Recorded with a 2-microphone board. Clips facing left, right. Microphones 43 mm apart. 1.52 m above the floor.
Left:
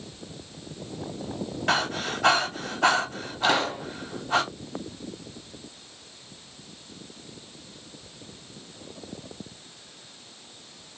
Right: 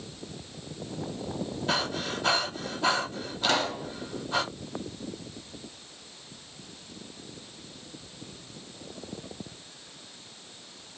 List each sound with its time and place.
1.7 s breathing: 60° left (ahead or behind), 2.5 m
3.4 s a pop: 10° left (ahead or behind), 1.1 m